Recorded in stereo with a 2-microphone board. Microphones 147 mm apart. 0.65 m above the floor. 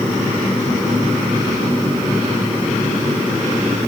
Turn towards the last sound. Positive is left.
No sound to turn to.